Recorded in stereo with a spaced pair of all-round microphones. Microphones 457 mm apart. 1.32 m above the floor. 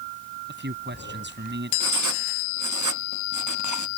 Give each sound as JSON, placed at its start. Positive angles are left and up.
{"t": 0.5, "sound": "a man speaking", "side_deg": -25}
{"t": 1.8, "sound": "writing", "side_deg": -45}